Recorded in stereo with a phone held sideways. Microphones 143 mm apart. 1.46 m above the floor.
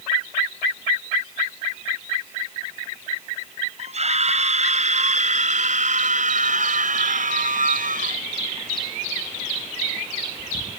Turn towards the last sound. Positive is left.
turn(degrees=-75)  # may be behind; listen again after turning